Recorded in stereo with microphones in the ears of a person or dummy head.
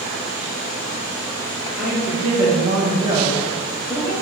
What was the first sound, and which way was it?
A woman speaking, 35° right (ahead or behind).